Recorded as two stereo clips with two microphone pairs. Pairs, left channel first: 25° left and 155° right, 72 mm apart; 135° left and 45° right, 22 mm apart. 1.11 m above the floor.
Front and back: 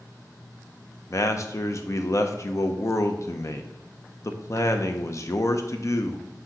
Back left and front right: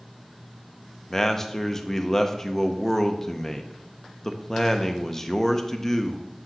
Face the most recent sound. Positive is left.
turn(degrees=65)